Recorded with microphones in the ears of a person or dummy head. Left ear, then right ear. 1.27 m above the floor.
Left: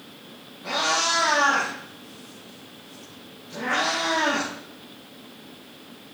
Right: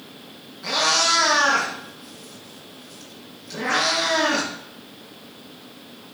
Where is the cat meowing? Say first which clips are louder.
Right 4 dB; 55° right (ahead or behind), 5.5 m.